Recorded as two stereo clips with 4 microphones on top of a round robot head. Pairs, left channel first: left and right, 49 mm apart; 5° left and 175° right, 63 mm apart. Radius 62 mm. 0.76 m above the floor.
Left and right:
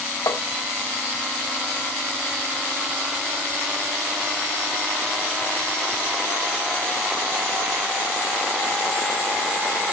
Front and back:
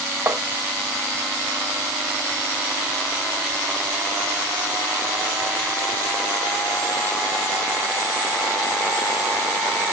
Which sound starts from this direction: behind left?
Tapping, at 0.3 s.